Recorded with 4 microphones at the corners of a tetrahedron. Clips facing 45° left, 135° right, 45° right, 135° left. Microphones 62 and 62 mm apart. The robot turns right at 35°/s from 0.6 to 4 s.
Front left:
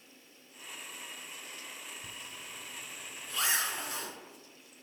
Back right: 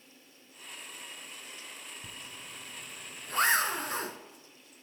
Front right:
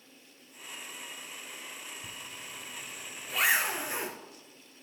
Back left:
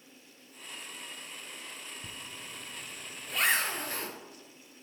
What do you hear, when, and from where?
2.0 s a zipper: 175° right, 0.9 m; by 4.2 s 110° right, 0.9 m